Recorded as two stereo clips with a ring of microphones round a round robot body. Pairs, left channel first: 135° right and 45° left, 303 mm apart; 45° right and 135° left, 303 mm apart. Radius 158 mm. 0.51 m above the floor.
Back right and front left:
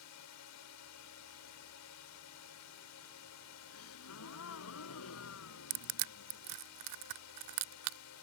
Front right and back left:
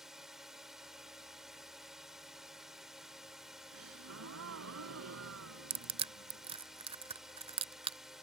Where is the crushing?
65° left.